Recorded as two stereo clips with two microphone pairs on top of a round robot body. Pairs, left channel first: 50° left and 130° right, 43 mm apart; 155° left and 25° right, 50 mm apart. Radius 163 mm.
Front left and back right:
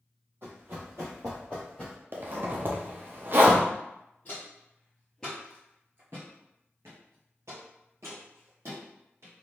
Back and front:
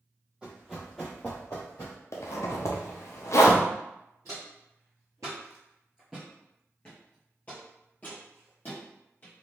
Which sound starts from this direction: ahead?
Footsteps, at 4.2 s.